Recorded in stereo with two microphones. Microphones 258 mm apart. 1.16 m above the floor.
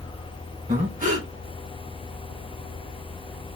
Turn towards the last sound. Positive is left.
turn(degrees=-30)  # may be behind; listen again after turning